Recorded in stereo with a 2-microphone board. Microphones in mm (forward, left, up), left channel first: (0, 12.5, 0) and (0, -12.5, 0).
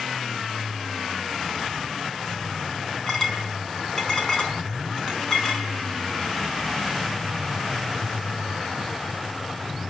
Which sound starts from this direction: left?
A clink, at 3.1 s.